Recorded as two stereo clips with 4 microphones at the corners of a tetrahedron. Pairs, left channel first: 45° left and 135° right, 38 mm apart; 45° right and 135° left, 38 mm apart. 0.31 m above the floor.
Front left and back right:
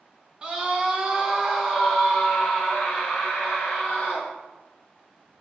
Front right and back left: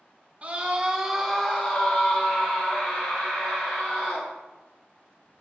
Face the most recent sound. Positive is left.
turn(degrees=-35)